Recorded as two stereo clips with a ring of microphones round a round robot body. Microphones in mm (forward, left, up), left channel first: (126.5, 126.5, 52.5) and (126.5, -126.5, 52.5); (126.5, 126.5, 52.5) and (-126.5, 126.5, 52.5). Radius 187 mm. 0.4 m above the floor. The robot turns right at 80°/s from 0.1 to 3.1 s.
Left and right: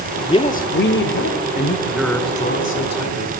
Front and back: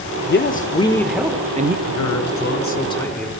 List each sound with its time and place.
0.2 s a man speaking: 20° left, 1.2 m; by 1.8 s 140° left, 1.2 m
1.9 s a man speaking: 15° right, 5 m; by 3.3 s 85° left, 5 m